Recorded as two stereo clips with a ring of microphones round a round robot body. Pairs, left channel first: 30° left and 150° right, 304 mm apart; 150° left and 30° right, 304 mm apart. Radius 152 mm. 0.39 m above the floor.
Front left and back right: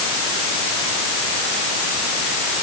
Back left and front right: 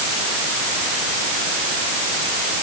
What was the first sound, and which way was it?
Only background noise.